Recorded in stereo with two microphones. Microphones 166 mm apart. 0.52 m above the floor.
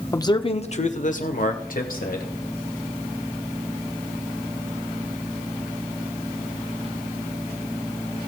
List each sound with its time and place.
0.1 s a man speaking: 20° left (ahead or behind), 0.8 m; by 2.3 s 65° left (ahead or behind), 2.5 m